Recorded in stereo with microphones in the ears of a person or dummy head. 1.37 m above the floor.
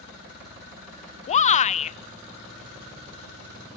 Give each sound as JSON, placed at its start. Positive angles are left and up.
{"t": 1.3, "sound": "a shout", "side_deg": 30, "distance_m": 0.6}